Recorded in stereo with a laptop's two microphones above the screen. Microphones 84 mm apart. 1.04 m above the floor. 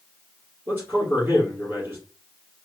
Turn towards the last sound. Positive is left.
turn(degrees=-25)  # may be behind; listen again after turning